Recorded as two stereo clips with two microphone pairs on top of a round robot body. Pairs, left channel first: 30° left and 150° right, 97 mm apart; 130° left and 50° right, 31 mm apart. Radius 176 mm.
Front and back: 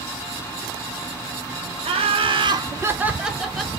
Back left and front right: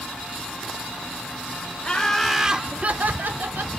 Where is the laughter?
170° right, 0.8 m; by 3.7 s 55° right, 1.2 m.